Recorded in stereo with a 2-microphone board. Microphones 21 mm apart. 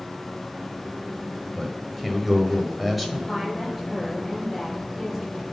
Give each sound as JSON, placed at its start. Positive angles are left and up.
{"t": 1.6, "sound": "a man speaking", "side_deg": 0, "distance_m": 1.5}
{"t": 3.3, "sound": "a woman speaking", "side_deg": 5, "distance_m": 4.5}